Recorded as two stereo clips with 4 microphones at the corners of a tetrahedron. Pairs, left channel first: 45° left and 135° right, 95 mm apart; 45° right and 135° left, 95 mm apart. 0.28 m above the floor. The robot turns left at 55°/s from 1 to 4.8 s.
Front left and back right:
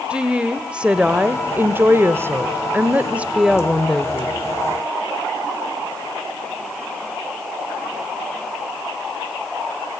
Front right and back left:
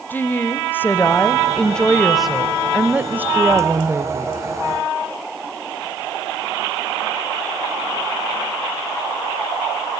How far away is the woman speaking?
About 0.9 m.